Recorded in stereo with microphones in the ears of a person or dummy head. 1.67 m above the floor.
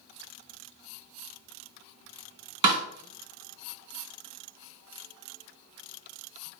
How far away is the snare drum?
About 1.7 m.